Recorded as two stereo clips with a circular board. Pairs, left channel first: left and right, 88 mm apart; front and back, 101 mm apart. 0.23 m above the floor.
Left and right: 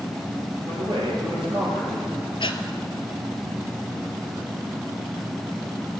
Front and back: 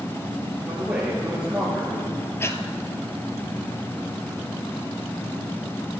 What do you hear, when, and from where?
0.7 s a man speaking: 95° right, 5.5 m
2.4 s breathing: 65° left, 0.7 m